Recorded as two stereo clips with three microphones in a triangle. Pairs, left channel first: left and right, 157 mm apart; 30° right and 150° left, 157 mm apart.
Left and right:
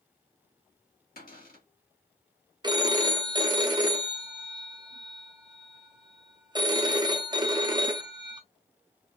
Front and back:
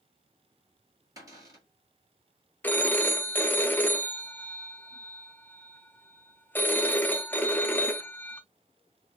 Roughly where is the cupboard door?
Left.